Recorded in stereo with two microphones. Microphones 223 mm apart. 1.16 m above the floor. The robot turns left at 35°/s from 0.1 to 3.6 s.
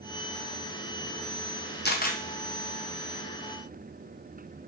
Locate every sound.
1.9 s a camera shutter: 50° left (ahead or behind), 0.6 m; by 2.2 s 40° left (ahead or behind), 0.6 m